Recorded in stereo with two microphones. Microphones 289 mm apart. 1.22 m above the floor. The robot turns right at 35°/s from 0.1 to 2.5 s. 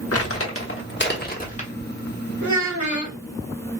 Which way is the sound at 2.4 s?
75° right (ahead or behind).